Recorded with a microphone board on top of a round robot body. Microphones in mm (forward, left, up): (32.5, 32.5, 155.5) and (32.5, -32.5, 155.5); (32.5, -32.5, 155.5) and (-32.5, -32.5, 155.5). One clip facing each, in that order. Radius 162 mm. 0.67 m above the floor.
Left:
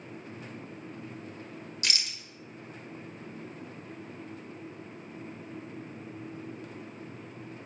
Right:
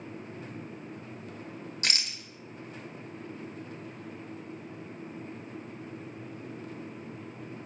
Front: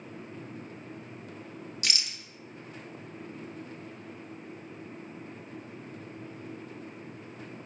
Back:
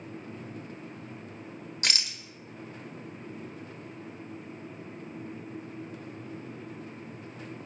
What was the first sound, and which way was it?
A rattle, 140° right.